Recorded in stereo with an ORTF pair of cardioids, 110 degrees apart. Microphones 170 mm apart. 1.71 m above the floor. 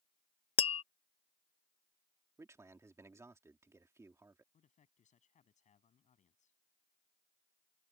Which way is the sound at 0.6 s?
35° left.